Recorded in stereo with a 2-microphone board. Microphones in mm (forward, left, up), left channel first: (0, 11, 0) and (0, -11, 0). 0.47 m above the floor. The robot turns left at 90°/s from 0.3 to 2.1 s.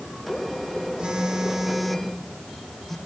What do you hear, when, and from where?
1.0 s a phone buzzing: 105° right, 1.1 m; by 3.0 s 155° left, 1.1 m